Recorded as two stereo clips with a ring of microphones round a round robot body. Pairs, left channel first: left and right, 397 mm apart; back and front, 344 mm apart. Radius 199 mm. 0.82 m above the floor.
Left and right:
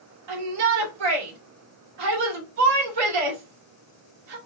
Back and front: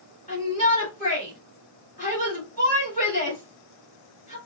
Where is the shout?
110° right, 2 m.